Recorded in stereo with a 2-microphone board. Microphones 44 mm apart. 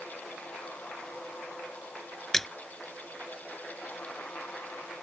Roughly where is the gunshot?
I don't hear a gunshot.